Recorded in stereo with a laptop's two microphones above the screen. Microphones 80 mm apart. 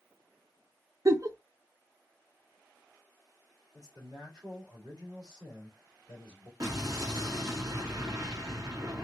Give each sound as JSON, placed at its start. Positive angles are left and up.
{"t": 1.1, "sound": "a giggle", "side_deg": -45, "distance_m": 0.6}
{"t": 3.7, "sound": "a man speaking", "side_deg": -55, "distance_m": 3.0}
{"t": 6.6, "sound": "an explosion", "side_deg": -50, "distance_m": 2.0}